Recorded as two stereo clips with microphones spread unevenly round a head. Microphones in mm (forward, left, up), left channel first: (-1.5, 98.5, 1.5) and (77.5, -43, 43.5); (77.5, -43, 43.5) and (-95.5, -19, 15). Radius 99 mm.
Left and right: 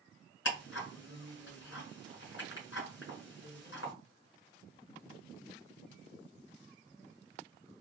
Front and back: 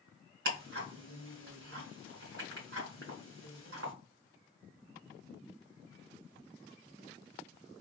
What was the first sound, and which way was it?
Ticking, 140° left.